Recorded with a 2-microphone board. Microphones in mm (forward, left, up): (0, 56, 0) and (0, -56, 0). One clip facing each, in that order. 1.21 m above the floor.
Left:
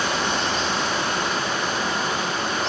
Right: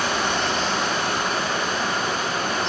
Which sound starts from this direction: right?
Running water, at 0.0 s.